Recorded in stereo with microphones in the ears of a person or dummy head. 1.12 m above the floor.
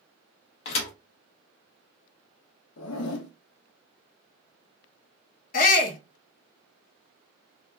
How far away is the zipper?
About 0.5 m.